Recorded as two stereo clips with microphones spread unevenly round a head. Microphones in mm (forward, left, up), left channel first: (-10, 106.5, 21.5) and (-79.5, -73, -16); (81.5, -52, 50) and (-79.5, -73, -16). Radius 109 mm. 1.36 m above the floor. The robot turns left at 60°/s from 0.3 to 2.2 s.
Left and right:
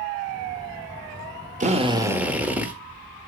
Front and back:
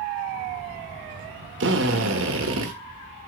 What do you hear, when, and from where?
1.6 s a drill: 165° right, 1.6 m; by 2.7 s 160° left, 1.6 m